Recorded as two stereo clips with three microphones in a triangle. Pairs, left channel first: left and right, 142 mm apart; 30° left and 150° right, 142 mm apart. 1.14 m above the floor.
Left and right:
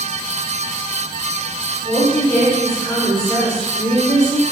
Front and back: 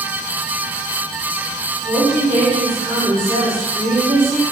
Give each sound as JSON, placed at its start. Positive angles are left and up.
{"t": 1.8, "sound": "a woman speaking", "azimuth_deg": 165, "distance_m": 1.0}